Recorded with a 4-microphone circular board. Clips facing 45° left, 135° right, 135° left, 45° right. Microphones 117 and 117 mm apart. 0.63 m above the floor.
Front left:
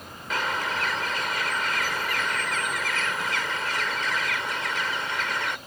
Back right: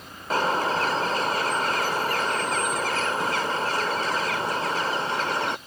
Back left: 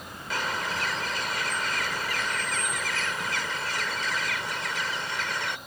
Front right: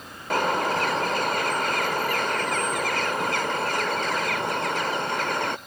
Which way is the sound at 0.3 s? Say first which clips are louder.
Back right 5 dB, front right 8 dB; 80° right.